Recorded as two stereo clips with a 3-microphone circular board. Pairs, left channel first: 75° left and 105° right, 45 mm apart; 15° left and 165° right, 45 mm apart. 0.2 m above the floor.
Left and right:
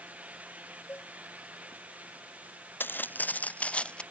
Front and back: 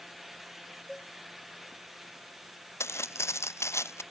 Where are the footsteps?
30° left; by 4.0 s 5° left.